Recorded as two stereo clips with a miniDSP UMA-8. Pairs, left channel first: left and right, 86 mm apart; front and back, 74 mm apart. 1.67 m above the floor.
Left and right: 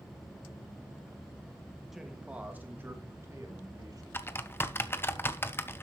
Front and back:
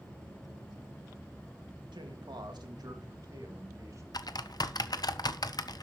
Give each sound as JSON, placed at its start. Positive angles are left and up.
{"t": 1.9, "sound": "a man speaking", "azimuth_deg": 180, "distance_m": 1.8}
{"t": 4.1, "sound": "typing on a keyboard", "azimuth_deg": 25, "distance_m": 0.8}